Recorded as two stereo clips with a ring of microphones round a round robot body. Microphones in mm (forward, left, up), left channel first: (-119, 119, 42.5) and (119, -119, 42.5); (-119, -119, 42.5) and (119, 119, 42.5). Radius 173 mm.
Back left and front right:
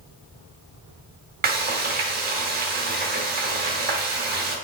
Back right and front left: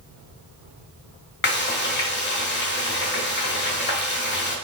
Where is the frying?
95° right, 1.0 m.